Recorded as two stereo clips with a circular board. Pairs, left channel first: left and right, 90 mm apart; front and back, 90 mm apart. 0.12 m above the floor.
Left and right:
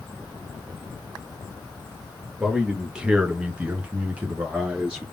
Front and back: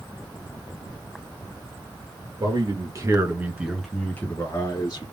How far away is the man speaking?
About 2 m.